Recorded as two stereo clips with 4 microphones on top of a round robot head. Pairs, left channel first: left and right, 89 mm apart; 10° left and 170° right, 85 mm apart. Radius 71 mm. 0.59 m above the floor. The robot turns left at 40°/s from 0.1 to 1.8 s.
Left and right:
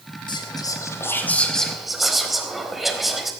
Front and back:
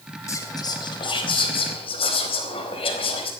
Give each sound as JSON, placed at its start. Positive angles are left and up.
{"t": 0.3, "sound": "whispering", "azimuth_deg": 60, "distance_m": 4.0}